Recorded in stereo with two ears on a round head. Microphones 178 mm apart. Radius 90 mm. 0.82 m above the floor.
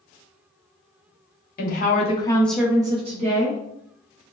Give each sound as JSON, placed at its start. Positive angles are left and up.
{"t": 1.6, "sound": "a woman speaking", "side_deg": 50, "distance_m": 0.7}